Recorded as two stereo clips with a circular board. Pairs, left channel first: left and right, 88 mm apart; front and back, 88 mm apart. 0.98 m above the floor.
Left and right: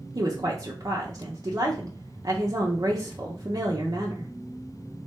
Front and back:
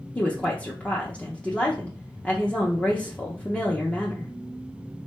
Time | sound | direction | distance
0.1 | a woman speaking | 70° right | 0.6 m